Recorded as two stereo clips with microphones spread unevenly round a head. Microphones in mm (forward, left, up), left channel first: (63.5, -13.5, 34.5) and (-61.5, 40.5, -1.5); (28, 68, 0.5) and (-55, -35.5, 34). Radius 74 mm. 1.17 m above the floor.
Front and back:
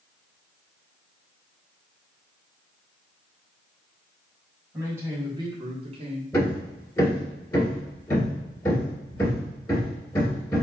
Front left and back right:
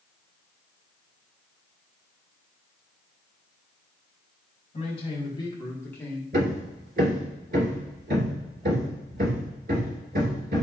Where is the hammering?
95° right, 2.5 m.